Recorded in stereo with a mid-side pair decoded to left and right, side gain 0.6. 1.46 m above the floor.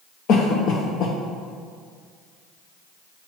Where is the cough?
60° left, 0.8 m.